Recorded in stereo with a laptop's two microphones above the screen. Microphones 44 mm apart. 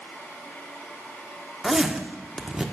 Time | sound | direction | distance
0.0 | a fan | 80° left | 4 m
1.6 | a zipper | 15° right (ahead or behind) | 0.8 m